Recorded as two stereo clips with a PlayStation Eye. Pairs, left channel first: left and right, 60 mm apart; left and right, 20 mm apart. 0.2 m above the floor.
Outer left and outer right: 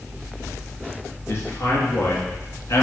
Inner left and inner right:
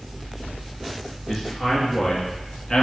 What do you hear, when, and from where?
1.3 s a man speaking: 45° left (ahead or behind), 3.5 m; by 2.8 s 50° left (ahead or behind), 2.5 m